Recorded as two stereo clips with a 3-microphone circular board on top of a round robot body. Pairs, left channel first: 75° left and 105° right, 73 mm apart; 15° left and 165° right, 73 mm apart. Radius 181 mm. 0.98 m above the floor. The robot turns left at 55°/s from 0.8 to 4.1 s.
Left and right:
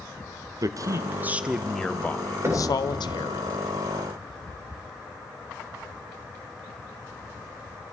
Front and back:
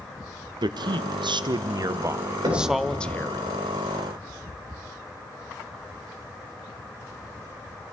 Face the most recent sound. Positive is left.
turn(degrees=115)